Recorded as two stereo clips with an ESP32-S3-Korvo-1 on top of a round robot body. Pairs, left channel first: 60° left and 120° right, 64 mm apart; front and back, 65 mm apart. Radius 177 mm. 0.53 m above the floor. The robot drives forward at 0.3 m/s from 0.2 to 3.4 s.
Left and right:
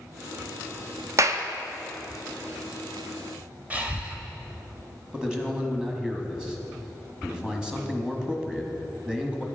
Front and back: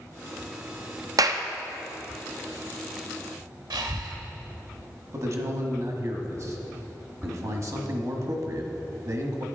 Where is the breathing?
170° left, 1.0 m.